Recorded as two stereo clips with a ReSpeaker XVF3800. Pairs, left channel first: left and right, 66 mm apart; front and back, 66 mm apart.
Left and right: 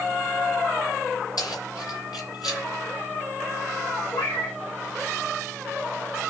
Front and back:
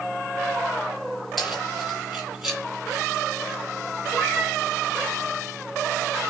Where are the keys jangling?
90° left, 6 m; by 2.6 s 95° left, 6 m.